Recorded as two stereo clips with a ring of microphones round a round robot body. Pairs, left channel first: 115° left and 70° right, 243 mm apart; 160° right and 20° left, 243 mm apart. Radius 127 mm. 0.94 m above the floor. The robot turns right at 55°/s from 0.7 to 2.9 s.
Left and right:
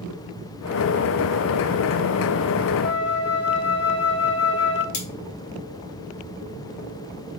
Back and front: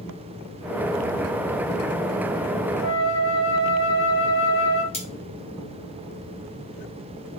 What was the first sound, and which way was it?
A flute, 155° right.